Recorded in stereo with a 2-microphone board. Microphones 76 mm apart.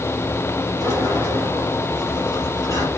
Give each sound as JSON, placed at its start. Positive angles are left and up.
{"t": 0.8, "sound": "a sliding door", "side_deg": 40, "distance_m": 6.5}